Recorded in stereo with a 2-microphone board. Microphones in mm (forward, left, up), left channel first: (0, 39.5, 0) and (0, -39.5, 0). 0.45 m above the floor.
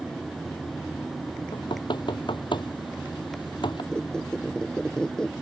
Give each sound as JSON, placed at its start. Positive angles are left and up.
{"t": 1.5, "sound": "knocking", "side_deg": 80}
{"t": 3.9, "sound": "a squeak", "side_deg": 10}